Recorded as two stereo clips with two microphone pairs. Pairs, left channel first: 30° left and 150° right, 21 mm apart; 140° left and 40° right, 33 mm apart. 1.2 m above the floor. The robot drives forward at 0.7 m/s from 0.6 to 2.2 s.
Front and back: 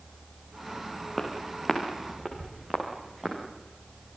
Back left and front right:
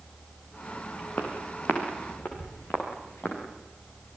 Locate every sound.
1.2 s footsteps: 130° left, 5.5 m; by 3.4 s 155° left, 7.5 m